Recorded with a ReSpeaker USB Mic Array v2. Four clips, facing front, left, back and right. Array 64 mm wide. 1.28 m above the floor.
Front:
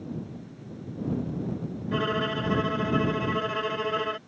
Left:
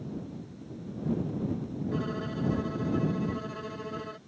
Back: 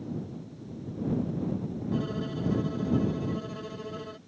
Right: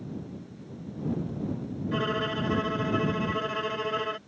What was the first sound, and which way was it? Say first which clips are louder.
A violin: right 7 dB, front 6 dB; 35° right.